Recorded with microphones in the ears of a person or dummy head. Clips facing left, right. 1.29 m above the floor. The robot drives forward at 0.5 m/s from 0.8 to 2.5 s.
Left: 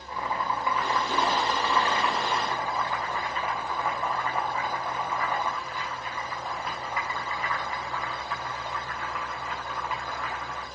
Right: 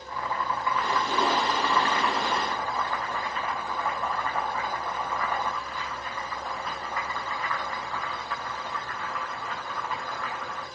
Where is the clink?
No clink in this recording.